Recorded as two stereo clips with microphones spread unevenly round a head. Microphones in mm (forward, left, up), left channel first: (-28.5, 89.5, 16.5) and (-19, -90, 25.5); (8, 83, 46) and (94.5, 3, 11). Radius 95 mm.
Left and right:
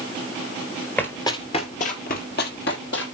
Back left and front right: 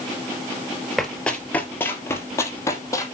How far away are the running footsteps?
About 1.6 m.